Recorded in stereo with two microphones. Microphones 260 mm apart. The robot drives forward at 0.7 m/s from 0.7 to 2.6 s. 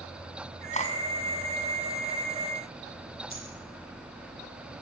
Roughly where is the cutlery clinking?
Left.